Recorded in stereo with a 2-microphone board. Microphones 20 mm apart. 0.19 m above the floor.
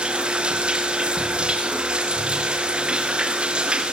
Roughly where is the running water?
Right.